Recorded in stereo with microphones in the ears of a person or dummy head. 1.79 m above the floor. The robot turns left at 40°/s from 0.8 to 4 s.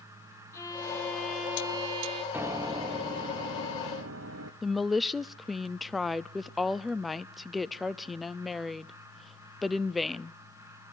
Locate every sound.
0.5 s a violin: 20° left, 5 m; by 2.2 s 35° right, 5 m
2.3 s a piano: 10° right, 1.1 m; by 4.5 s 75° right, 1.1 m
4.6 s a woman speaking: centre (ahead or behind), 0.5 m